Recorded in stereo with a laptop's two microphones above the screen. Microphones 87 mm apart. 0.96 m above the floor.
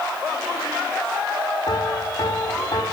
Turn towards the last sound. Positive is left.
turn(degrees=55)  # may be behind; listen again after turning